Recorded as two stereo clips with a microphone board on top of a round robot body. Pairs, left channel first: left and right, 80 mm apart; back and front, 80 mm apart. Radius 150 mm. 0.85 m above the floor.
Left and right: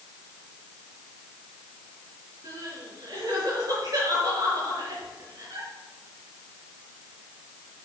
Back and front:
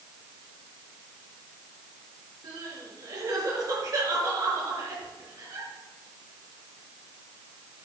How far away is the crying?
About 5 m.